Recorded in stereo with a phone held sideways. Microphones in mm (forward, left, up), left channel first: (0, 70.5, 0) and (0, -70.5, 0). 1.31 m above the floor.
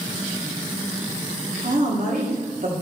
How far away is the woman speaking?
About 1.5 m.